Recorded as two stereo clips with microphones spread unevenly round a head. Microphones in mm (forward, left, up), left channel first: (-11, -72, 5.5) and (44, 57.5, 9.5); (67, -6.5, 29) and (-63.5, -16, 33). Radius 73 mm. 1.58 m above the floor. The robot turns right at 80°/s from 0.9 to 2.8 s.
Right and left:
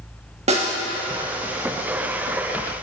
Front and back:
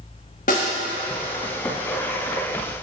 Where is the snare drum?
35° left, 1.5 m.